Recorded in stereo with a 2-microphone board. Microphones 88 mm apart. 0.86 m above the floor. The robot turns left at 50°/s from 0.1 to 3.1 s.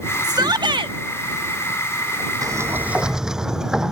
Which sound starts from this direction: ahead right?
A shout, at 0.2 s.